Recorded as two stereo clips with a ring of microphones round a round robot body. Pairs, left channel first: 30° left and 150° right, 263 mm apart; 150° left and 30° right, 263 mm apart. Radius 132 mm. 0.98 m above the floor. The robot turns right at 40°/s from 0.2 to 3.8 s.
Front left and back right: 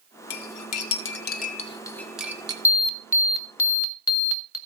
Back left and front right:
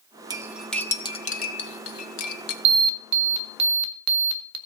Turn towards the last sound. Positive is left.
turn(degrees=0)